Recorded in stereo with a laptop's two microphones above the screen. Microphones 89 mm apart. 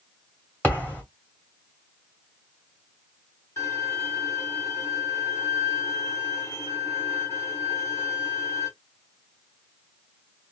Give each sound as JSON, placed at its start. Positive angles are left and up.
{"t": 0.6, "sound": "a thud", "side_deg": 20, "distance_m": 1.8}
{"t": 3.6, "sound": "a violin", "side_deg": 30, "distance_m": 1.8}